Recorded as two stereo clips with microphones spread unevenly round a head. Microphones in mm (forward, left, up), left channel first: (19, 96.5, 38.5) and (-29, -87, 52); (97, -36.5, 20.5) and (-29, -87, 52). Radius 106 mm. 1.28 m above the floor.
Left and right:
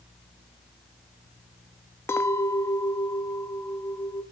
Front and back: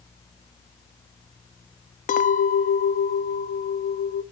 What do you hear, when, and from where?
2.1 s a clink: 5° right, 0.9 m